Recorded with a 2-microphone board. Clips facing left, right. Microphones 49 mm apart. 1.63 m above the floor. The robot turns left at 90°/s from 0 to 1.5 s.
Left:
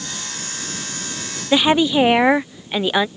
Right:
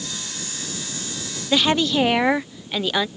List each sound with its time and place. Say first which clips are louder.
1.5 s a woman speaking: left 4 dB; 15° left (ahead or behind)